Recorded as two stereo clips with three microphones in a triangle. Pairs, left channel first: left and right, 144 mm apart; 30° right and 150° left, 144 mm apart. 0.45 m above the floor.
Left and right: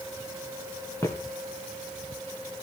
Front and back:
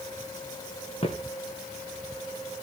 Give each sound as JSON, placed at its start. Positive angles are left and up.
{"t": 1.0, "sound": "footsteps", "azimuth_deg": 20, "distance_m": 3.0}